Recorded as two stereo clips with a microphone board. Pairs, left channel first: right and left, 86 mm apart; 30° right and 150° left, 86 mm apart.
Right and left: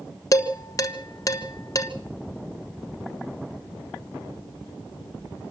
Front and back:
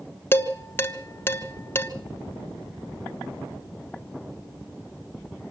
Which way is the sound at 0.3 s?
80° right.